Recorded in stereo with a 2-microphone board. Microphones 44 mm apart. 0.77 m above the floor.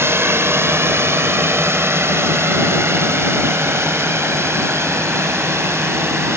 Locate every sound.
0.0 s a drone: 65° right (ahead or behind); by 6.4 s 75° right (ahead or behind)